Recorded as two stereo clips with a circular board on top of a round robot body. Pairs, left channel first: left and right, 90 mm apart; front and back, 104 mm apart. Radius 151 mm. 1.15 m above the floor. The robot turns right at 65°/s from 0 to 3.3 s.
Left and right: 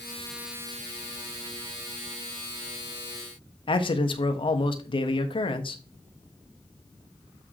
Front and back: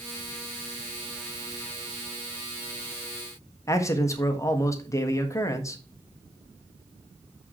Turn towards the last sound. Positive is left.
turn(degrees=65)